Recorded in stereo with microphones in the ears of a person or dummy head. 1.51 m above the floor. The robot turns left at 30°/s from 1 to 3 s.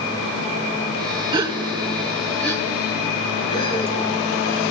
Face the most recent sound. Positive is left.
turn(degrees=25)  # may be behind; listen again after turning